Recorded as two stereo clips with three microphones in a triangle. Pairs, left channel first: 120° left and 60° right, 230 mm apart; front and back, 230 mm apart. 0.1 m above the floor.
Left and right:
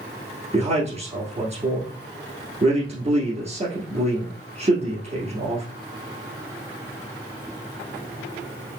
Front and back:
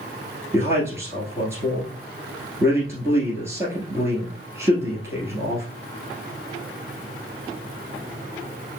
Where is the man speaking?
105° right, 1.6 m.